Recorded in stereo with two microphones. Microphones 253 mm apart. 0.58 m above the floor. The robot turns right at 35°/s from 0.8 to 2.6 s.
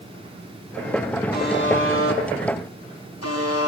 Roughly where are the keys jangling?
I don't hear keys jangling.